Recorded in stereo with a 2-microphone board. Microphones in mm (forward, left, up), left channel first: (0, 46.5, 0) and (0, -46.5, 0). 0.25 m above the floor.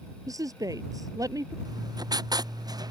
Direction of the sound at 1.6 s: 45° right (ahead or behind).